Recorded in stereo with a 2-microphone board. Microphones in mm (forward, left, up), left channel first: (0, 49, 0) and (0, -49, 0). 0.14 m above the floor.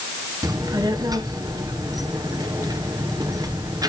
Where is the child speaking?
40° right (ahead or behind), 1.7 m.